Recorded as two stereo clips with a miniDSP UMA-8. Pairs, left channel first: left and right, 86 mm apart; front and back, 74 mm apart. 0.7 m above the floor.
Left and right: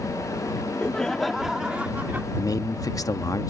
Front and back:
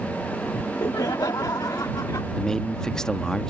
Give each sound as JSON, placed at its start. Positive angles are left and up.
{"t": 0.5, "sound": "laughter", "azimuth_deg": 30}
{"t": 2.4, "sound": "a man speaking", "azimuth_deg": 80}